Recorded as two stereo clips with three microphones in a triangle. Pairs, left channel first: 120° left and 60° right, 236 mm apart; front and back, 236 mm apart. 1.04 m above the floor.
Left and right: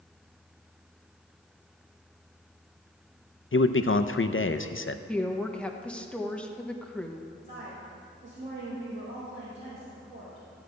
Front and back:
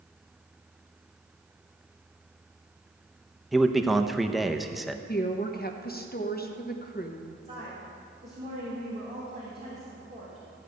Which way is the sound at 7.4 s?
120° right.